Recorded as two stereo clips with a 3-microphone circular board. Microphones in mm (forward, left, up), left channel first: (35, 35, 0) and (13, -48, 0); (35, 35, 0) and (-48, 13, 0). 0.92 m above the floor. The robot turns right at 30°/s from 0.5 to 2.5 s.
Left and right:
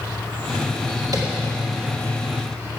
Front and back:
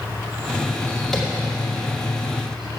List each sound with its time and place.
0.0 s an insect: 140° left, 3 m; by 2.8 s 160° right, 3 m
1.1 s tapping: 70° right, 2 m